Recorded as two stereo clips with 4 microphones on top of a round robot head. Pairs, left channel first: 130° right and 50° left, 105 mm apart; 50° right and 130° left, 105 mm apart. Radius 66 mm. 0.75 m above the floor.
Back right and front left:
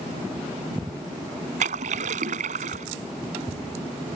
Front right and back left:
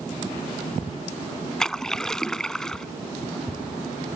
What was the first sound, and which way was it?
A splash, 35° left.